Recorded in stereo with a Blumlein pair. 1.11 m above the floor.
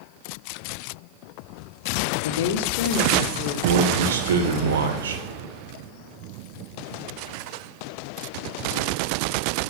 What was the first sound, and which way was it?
A woman speaking, 60° left.